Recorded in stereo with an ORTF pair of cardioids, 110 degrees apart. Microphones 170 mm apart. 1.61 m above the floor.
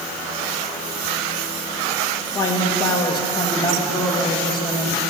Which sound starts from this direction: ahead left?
A man speaking, at 2.4 s.